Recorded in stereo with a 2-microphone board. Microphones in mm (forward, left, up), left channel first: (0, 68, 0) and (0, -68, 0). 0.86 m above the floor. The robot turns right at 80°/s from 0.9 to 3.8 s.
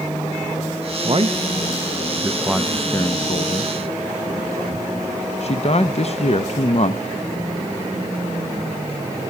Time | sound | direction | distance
1.0 | a man speaking | 40° right (ahead or behind) | 0.5 m